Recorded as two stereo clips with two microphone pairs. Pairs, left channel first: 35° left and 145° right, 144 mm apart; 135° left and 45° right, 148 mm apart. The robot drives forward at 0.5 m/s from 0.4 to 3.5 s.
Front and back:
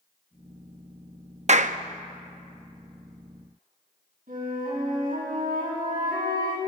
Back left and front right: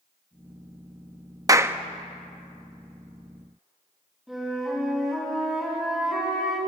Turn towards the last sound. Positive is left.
turn(degrees=-130)